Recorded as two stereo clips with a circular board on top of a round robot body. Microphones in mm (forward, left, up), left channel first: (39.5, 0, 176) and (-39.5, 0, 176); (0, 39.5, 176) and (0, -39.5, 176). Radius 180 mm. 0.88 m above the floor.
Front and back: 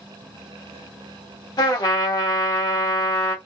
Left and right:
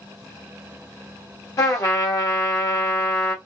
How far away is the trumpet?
About 1.0 m.